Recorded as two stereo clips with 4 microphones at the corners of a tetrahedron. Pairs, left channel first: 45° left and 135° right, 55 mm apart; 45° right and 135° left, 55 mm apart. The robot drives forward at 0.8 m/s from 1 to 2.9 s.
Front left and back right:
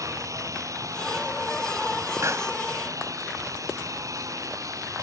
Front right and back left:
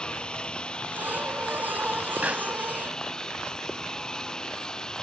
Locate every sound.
0.0 s a lawn mower: 120° right
2.2 s a pop: 160° right